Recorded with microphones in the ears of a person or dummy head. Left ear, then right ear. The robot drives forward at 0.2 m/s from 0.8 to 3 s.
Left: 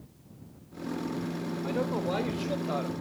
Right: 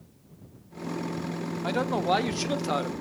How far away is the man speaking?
About 0.8 m.